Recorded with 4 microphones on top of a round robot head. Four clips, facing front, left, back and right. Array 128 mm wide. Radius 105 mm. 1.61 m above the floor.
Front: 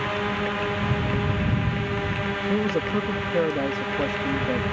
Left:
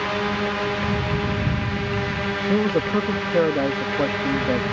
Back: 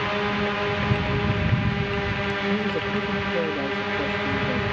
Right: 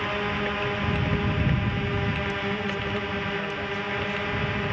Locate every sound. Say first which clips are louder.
0.0 s a drone: left 4 dB, back 1 dB; 115° left
2.5 s a man speaking: left 9 dB, front 4 dB; 80° left